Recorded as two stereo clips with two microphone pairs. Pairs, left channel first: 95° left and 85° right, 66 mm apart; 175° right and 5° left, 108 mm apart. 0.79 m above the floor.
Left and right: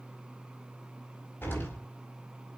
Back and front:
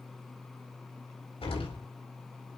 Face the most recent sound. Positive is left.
turn(degrees=155)